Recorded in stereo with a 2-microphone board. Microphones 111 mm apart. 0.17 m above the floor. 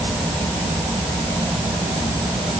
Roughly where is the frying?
I don't hear frying.